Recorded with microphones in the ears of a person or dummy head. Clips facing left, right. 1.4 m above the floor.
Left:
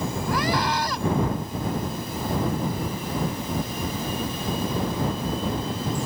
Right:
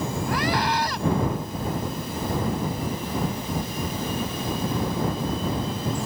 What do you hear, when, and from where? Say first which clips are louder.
0.3 s a scream: even; 90° left